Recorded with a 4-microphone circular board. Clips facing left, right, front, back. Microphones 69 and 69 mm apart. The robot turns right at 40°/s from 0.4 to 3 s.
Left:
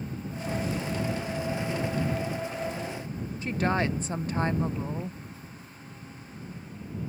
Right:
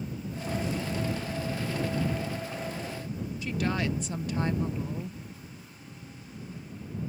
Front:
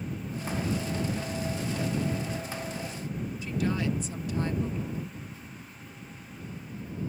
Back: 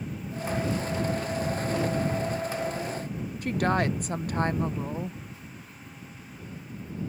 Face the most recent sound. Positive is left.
turn(degrees=145)